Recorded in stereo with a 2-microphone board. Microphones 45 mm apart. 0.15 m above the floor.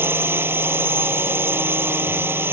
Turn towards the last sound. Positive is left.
turn(degrees=-55)  # may be behind; listen again after turning